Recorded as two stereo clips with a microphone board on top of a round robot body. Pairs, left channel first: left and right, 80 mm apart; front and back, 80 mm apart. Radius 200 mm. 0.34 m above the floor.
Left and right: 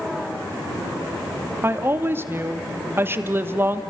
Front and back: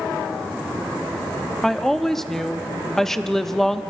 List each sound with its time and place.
1.6 s a woman speaking: 80° right, 1.0 m